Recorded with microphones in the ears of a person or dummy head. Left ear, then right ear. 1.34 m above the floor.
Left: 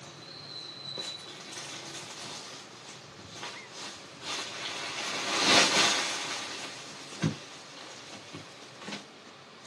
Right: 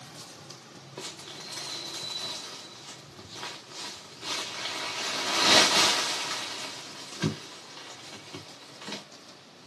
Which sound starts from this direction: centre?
Crumpling, at 1.0 s.